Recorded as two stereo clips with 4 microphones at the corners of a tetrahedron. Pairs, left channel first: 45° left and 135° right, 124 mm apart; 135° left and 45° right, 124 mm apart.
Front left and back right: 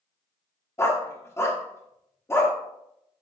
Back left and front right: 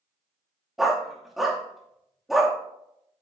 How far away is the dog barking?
About 1.1 m.